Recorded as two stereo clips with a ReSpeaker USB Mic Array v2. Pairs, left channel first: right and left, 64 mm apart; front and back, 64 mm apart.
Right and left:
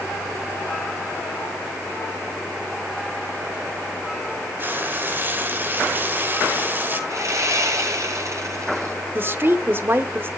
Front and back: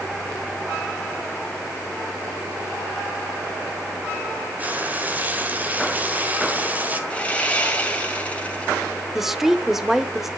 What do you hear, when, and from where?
4.6 s frying: 130° left, 1.5 m
7.1 s sawing: 70° left, 2.5 m
9.2 s a woman speaking: 100° left, 0.9 m